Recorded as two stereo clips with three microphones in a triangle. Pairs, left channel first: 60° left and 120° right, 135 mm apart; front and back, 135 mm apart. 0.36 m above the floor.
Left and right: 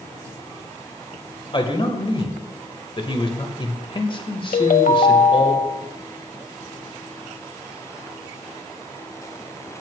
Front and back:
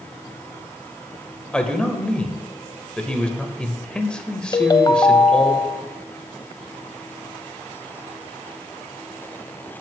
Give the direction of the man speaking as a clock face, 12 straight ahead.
9 o'clock.